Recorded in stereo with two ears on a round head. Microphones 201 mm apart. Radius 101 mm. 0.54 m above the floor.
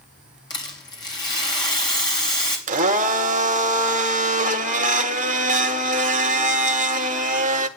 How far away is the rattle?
About 3.5 m.